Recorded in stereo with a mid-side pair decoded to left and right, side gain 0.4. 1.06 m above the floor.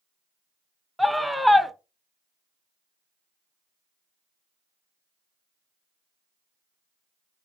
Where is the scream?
5° left, 0.7 m.